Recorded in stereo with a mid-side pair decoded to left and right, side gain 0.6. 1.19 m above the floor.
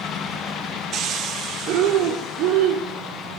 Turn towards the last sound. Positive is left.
turn(degrees=-70)